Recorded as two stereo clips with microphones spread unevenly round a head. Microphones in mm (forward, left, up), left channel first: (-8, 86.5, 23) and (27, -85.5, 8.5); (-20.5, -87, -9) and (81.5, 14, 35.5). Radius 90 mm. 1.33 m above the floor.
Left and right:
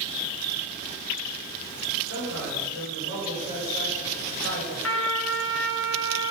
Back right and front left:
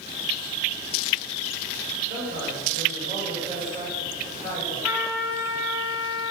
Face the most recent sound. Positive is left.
turn(degrees=115)